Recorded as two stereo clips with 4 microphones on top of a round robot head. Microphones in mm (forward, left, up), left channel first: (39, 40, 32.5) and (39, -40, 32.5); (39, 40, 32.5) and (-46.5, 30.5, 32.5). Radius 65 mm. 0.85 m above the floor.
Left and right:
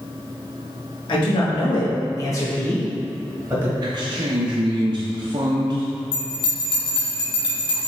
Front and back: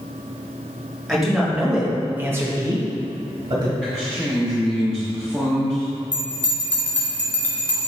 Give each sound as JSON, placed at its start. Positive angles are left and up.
{"t": 1.1, "sound": "a man speaking", "azimuth_deg": 95, "distance_m": 1.9}
{"t": 3.8, "sound": "a man speaking", "azimuth_deg": -75, "distance_m": 0.6}
{"t": 6.1, "sound": "a bell", "azimuth_deg": 80, "distance_m": 1.6}